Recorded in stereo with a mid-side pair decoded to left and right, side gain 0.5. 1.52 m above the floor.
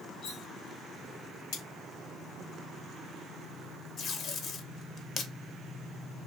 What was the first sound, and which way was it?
Cutlery clinking, 65° left.